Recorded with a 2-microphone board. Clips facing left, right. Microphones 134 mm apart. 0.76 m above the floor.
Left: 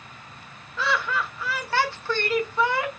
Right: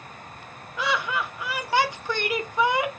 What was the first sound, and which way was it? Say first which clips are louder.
Laughter: even; 15° right (ahead or behind).